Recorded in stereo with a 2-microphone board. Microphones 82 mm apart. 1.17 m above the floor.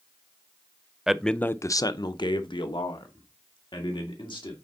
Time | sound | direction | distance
1.1 | a man speaking | 5° right (ahead or behind) | 0.6 m